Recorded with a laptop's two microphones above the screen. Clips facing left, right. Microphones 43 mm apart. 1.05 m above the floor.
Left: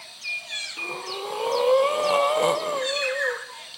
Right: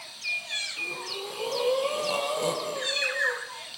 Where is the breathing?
45° left (ahead or behind), 1.1 m.